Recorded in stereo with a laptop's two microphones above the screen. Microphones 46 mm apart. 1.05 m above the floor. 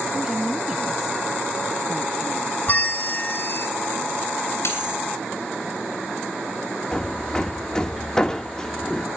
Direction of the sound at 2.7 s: 45° left (ahead or behind).